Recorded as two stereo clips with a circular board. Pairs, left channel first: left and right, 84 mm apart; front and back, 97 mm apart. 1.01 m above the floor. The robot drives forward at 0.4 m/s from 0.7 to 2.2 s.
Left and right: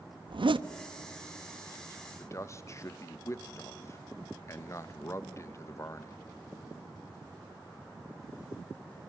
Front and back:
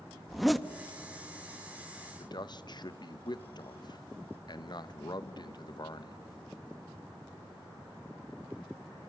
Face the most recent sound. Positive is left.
turn(degrees=35)